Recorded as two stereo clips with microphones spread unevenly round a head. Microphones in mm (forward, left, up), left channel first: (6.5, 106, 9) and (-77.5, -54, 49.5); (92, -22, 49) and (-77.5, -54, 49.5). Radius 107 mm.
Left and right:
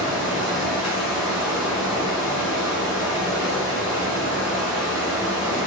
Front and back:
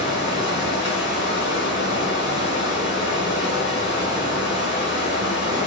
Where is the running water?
155° left, 1.7 m.